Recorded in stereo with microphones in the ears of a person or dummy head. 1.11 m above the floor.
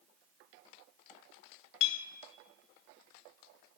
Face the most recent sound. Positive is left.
turn(degrees=70)  # may be behind; listen again after turning